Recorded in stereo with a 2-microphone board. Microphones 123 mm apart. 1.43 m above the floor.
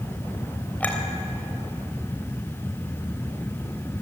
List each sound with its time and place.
0.8 s a clink: 15° left (ahead or behind), 3.5 m